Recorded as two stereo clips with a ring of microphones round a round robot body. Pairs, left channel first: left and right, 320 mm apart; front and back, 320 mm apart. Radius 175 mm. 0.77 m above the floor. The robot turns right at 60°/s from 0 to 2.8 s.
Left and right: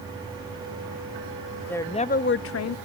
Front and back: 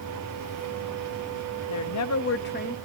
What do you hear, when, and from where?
1.7 s a woman speaking: 5° left, 0.7 m; by 2.8 s 70° left, 0.7 m